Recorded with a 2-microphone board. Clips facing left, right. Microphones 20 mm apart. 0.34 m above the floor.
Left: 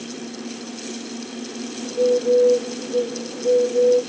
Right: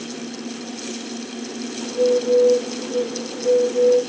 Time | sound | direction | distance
1.8 | a bird | 25° right (ahead or behind) | 1.2 m